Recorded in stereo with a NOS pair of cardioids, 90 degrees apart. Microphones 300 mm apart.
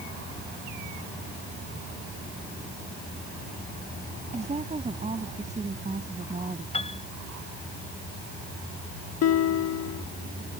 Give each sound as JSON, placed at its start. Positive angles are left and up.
{"t": 4.3, "sound": "a woman speaking", "azimuth_deg": -25}
{"t": 6.7, "sound": "a piano", "azimuth_deg": 20}
{"t": 9.2, "sound": "a guitar", "azimuth_deg": 55}